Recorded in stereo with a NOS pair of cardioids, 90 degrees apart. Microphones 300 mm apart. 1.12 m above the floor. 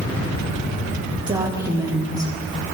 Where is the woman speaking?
10° right, 4.5 m.